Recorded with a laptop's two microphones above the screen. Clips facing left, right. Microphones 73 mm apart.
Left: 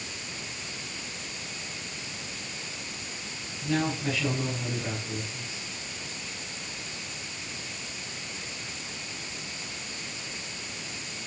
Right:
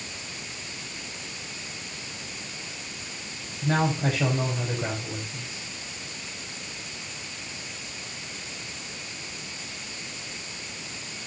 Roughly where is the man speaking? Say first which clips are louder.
Right 3 dB; right.